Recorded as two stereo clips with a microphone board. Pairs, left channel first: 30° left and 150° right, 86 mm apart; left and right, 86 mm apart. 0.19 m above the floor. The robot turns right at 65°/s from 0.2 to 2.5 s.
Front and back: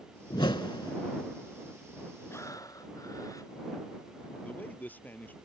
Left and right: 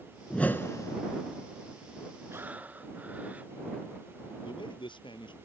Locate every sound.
0.3 s a whoosh: 10° left; by 1.0 s 55° left
2.3 s breathing: 30° right; by 3.5 s 20° right
4.4 s a man speaking: 100° left